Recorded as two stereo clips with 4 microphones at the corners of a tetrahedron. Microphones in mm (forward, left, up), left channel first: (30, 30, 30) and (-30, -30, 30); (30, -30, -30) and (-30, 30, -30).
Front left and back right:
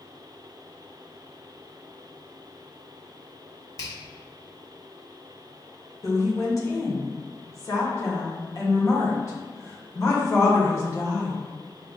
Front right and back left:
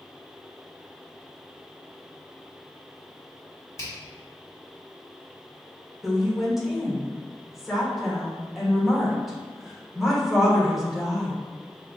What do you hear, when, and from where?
3.8 s a finger snap: straight ahead, 1.1 m
6.0 s a woman speaking: 50° left, 1.0 m